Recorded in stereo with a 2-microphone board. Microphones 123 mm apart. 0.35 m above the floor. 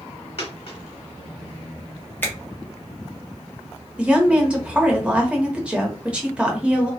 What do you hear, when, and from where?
0.4 s a dropped coin: 50° left (ahead or behind), 1.3 m
2.2 s a finger snap: 15° left (ahead or behind), 1.1 m
4.0 s a woman speaking: 10° right (ahead or behind), 0.9 m